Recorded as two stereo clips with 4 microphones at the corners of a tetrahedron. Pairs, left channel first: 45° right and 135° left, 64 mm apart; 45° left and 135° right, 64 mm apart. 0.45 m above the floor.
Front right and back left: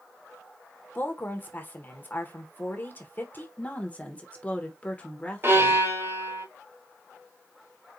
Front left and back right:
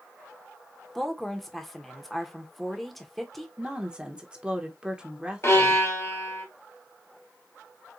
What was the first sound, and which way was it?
A woman speaking, 40° right.